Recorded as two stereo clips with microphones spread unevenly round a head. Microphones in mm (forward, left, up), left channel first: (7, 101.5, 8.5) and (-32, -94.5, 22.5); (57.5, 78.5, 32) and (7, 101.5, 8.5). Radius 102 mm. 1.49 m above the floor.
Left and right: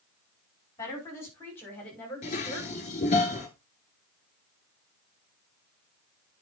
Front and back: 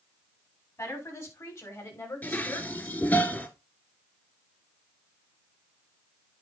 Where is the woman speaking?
Straight ahead, 6 m; by 3.2 s 10° right, 6.5 m.